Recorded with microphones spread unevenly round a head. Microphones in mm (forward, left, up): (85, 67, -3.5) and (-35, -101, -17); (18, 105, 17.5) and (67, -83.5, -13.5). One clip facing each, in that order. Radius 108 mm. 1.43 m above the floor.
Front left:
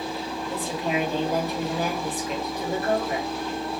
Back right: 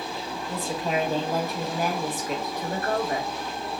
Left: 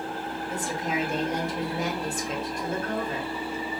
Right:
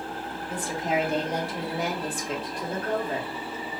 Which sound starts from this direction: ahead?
A woman speaking, at 0.5 s.